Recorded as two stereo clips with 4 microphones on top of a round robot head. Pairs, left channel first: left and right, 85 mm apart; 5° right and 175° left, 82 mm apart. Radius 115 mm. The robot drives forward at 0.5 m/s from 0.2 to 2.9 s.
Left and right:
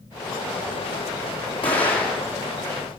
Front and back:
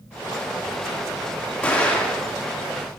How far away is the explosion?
About 1.7 m.